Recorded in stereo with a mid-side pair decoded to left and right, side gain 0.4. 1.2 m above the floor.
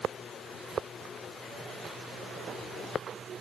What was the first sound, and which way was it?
Only background noise.